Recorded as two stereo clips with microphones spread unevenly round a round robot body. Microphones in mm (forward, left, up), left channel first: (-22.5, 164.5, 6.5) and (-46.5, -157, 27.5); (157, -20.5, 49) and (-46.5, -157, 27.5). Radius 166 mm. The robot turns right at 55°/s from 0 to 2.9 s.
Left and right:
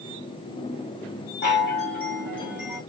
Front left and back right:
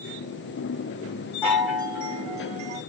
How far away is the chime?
About 1.4 m.